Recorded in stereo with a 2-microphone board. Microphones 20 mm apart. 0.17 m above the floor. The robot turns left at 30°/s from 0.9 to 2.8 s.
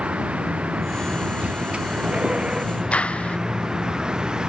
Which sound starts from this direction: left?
A clap, at 2.9 s.